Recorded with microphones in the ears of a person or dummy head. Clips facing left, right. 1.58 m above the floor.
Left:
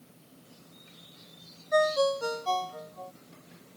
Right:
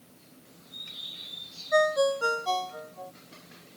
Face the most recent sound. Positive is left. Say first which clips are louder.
# right 1 dB
turn(degrees=-10)  # may be behind; listen again after turning